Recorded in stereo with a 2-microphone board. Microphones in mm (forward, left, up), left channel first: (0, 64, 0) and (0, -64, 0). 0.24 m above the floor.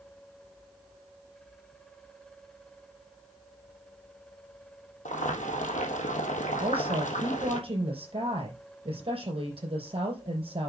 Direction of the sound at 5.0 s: 80° left.